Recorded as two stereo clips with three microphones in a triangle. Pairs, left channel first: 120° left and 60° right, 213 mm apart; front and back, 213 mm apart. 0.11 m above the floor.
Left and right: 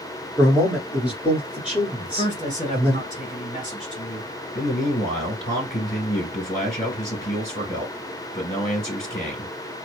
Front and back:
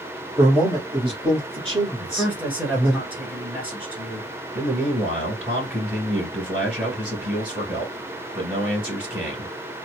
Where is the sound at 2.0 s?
105° left, 1.5 m.